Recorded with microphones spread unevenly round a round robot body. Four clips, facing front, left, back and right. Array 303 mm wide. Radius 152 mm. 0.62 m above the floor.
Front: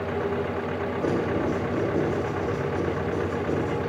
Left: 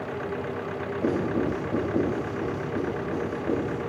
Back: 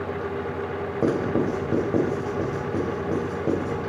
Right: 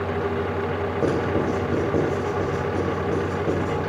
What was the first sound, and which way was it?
Writing, 150° right.